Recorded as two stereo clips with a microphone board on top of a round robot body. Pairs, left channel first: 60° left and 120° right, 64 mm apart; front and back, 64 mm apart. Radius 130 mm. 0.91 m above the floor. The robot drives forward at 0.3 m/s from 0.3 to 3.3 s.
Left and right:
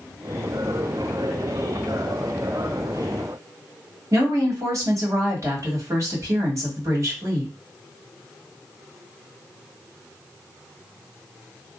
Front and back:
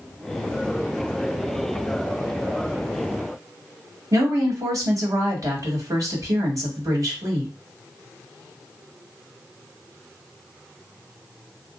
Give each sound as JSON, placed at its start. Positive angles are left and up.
{"t": 4.1, "sound": "a woman speaking", "azimuth_deg": -155, "distance_m": 1.9}